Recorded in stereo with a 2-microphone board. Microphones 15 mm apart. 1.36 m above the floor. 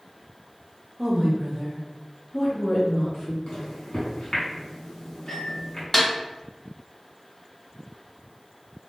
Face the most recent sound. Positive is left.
turn(degrees=5)  # may be behind; listen again after turning